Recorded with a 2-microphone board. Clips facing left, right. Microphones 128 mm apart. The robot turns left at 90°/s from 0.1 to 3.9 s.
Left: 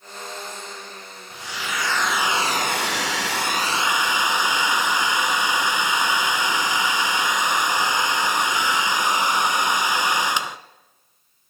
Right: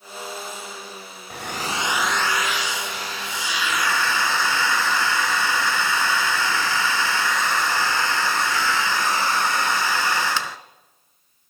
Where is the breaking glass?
No breaking glass in this recording.